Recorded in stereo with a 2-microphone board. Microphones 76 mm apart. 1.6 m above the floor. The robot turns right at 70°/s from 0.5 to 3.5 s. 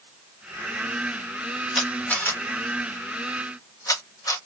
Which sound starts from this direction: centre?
A camera shutter, at 1.8 s.